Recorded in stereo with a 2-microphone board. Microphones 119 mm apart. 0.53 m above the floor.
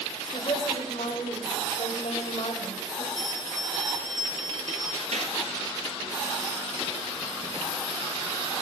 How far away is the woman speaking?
About 2 m.